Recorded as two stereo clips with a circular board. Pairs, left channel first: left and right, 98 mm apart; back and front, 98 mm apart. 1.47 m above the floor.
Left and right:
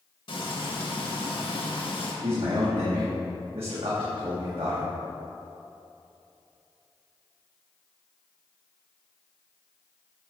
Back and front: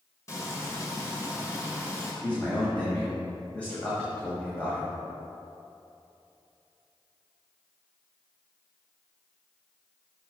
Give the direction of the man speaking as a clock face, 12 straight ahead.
3 o'clock.